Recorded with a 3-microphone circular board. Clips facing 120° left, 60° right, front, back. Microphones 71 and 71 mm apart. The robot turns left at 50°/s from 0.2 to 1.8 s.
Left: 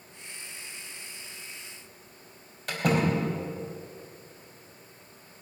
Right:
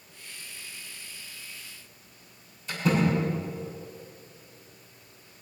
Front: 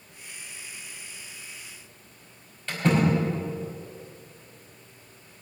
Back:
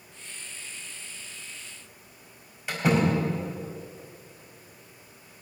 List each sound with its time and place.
2.7 s a door slam: 105° left, 4 m